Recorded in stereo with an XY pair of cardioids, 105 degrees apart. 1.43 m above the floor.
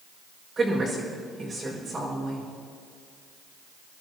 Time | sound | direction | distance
0.6 | a woman speaking | 35° right | 6.5 m